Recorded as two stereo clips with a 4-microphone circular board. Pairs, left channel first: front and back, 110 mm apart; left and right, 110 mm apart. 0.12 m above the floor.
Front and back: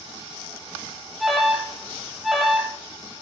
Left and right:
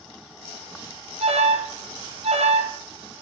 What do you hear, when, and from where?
1.2 s an alarm: 95° right, 2.5 m